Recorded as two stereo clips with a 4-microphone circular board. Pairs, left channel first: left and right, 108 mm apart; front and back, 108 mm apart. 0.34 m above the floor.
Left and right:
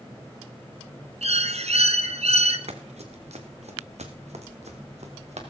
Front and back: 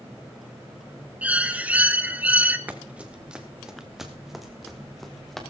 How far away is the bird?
About 1.3 m.